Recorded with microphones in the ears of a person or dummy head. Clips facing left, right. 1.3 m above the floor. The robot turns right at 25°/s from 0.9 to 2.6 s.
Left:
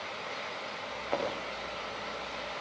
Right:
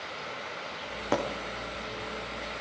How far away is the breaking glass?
About 6 m.